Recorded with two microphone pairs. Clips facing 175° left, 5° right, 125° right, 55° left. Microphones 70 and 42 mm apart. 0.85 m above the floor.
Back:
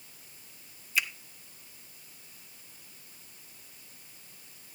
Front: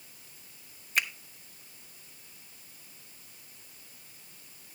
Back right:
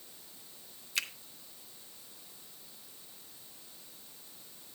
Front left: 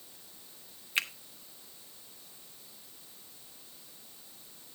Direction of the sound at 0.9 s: Straight ahead.